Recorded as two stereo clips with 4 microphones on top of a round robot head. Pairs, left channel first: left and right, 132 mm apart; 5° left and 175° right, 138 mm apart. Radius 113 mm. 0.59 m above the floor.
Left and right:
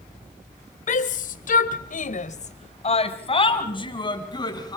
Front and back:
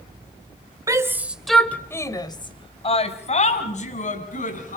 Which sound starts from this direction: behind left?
A shout, at 0.9 s.